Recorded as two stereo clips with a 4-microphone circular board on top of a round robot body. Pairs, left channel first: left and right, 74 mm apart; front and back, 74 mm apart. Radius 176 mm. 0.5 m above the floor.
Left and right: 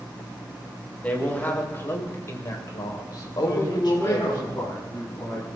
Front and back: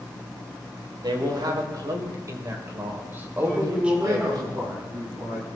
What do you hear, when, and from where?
1.0 s a man speaking: 160° left, 4 m; by 4.4 s 100° left, 4 m
3.4 s a man speaking: 145° left, 7.5 m